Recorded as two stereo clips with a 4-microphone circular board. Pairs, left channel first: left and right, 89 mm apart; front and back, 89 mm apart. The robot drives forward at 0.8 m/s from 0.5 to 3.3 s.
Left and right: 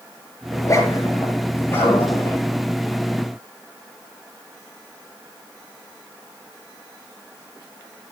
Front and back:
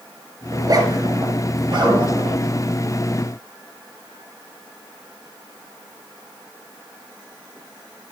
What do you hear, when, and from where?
0.5 s a zipper: 140° left, 2.5 m; by 2.4 s 155° left, 3.5 m